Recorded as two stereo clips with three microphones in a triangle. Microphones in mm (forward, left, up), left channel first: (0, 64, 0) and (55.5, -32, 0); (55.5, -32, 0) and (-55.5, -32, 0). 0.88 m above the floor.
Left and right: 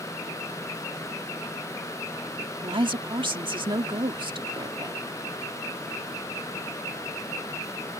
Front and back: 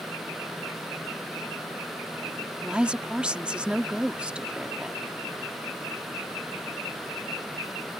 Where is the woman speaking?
100° right.